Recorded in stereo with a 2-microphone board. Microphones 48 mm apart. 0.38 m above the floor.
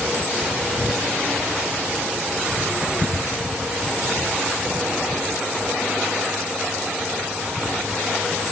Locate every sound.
Only background noise.